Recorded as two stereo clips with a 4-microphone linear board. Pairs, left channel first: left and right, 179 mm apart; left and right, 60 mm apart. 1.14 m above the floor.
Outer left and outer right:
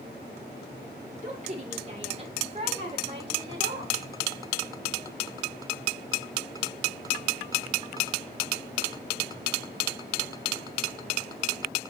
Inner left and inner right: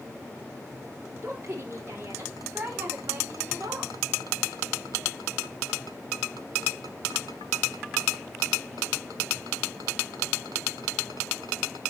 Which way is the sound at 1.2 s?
45° right (ahead or behind).